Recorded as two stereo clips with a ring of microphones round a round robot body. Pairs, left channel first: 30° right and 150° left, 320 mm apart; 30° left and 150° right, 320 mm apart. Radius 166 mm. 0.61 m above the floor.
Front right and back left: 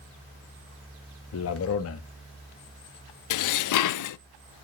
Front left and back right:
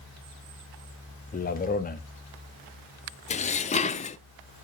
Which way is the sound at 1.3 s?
20° right.